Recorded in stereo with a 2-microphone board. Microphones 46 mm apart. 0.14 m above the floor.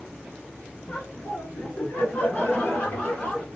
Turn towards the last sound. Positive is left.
turn(degrees=25)  # may be behind; listen again after turning